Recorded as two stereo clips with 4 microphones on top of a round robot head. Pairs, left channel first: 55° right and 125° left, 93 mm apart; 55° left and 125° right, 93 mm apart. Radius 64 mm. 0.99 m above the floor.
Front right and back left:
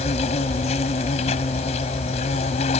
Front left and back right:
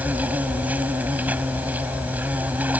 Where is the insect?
50° right.